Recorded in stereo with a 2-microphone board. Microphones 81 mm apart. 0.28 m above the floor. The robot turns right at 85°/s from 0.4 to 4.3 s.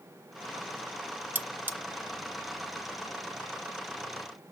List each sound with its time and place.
1.4 s cutlery clinking: 20° right (ahead or behind), 0.6 m